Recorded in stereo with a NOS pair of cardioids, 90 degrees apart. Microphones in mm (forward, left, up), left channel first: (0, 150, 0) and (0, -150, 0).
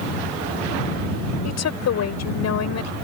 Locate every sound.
1.4 s a woman speaking: 60° left